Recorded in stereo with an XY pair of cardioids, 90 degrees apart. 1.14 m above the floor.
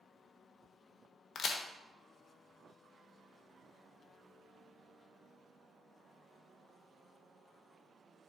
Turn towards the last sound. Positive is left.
turn(degrees=65)